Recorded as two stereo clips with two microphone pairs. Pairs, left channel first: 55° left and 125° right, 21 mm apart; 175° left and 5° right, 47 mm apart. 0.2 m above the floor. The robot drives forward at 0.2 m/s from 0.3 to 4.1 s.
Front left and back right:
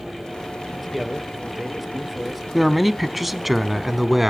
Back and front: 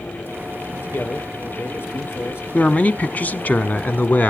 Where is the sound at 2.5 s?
140° left, 1.3 m; by 4.3 s 150° left, 1.5 m.